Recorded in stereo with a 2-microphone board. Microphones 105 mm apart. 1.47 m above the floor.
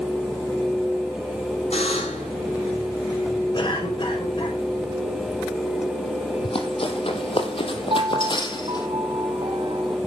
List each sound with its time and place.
1.7 s a buzzer: 85° left, 7 m
3.5 s a cough: 50° left (ahead or behind), 5 m
6.4 s running footsteps: 60° left (ahead or behind), 3.5 m; by 8.9 s 40° left (ahead or behind), 3.5 m
7.9 s a piano: 60° right (ahead or behind), 1.5 m